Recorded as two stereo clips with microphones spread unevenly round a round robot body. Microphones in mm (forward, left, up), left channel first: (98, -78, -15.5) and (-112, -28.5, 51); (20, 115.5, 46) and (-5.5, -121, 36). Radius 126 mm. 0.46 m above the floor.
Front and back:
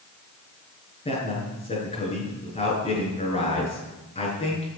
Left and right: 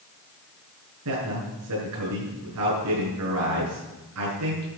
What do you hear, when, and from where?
1.1 s a man speaking: 75° right, 7 m